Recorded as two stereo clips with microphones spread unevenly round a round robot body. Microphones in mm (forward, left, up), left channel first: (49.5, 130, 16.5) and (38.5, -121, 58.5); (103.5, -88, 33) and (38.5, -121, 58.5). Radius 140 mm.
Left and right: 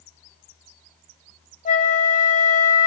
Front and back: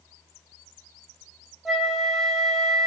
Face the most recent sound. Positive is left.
turn(degrees=95)